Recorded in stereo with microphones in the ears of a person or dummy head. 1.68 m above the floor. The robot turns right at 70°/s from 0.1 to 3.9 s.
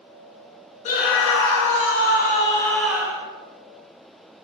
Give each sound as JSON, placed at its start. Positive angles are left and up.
{"t": 0.8, "sound": "a scream", "azimuth_deg": 40, "distance_m": 0.6}